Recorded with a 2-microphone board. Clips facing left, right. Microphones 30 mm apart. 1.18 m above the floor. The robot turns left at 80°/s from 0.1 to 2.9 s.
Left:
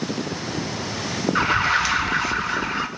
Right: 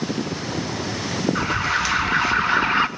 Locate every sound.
1.4 s an alarm: 45° left, 0.8 m; by 2.9 s 75° right, 0.8 m